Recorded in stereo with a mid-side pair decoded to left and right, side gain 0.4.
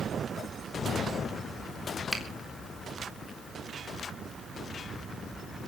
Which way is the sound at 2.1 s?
Straight ahead.